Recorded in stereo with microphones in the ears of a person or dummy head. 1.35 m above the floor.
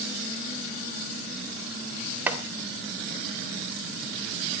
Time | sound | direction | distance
2.3 | chopping | 10° right (ahead or behind) | 3 m